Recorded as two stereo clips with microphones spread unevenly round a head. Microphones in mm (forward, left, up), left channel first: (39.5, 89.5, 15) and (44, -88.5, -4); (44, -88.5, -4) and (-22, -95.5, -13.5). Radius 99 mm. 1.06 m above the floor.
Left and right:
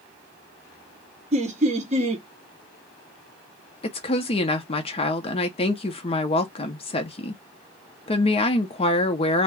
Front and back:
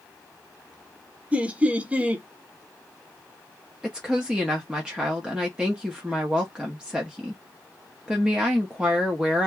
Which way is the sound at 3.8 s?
130° left.